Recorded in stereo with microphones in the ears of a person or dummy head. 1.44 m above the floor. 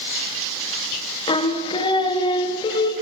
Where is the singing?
30° left (ahead or behind), 1.4 m.